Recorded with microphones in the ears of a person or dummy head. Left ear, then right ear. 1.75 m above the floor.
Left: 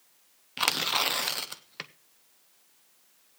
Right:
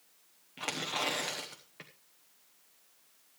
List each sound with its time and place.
0.6 s tearing paper: 55° left (ahead or behind), 0.9 m